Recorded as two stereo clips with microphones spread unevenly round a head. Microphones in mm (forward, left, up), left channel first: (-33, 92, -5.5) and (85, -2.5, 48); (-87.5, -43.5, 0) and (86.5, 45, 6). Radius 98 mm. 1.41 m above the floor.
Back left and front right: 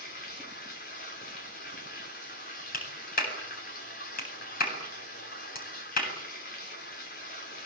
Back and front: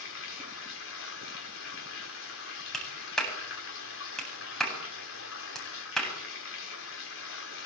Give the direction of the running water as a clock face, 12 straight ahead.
6 o'clock.